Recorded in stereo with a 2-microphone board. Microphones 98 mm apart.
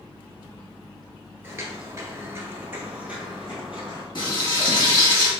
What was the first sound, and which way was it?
Footsteps, 25° right (ahead or behind).